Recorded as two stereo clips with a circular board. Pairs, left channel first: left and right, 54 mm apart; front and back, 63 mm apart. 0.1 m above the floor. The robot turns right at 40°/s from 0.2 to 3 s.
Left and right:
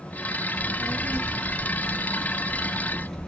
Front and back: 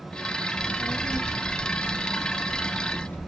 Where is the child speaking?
95° right, 0.9 m; by 3.3 s straight ahead, 0.9 m.